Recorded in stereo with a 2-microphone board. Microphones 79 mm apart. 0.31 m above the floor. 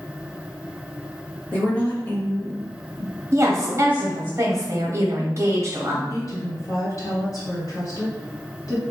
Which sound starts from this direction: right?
A woman speaking, at 3.3 s.